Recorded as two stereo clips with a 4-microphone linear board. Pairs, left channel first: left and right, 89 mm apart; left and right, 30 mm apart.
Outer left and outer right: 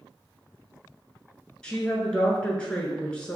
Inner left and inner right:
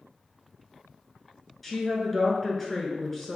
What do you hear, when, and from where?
1.6 s a woman speaking: 10° left (ahead or behind), 1.1 m